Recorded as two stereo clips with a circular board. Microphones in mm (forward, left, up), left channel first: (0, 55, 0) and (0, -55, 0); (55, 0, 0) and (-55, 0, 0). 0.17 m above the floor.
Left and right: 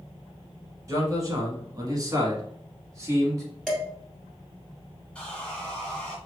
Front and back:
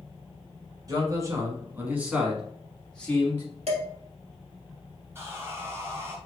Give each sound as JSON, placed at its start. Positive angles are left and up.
{"t": 0.9, "sound": "a man speaking", "azimuth_deg": -140, "distance_m": 1.6}
{"t": 3.7, "sound": "dishes clattering", "azimuth_deg": 175, "distance_m": 2.0}
{"t": 5.2, "sound": "sawing", "azimuth_deg": 155, "distance_m": 1.2}